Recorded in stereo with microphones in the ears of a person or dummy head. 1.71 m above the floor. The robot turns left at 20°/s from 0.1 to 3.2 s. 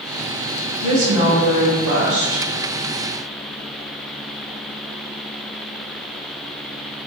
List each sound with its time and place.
0.8 s a woman speaking: 40° right, 1.2 m; by 2.5 s 75° right, 1.2 m